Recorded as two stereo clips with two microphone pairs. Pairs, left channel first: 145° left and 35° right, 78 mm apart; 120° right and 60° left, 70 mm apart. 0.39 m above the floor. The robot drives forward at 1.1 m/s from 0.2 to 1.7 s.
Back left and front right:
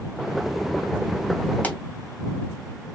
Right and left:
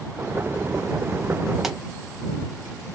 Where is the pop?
140° left, 1.0 m; by 1.8 s 145° left, 1.0 m.